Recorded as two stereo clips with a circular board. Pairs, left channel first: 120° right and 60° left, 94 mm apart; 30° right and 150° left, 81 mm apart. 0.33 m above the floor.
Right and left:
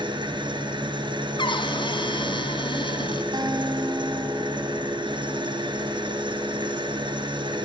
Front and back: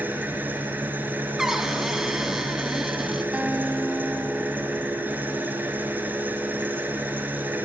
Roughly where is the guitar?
Left.